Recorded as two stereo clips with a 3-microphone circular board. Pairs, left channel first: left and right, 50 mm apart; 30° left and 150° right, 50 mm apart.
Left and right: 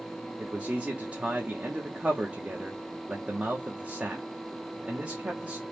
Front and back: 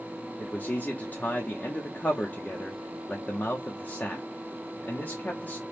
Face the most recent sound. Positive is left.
turn(degrees=-25)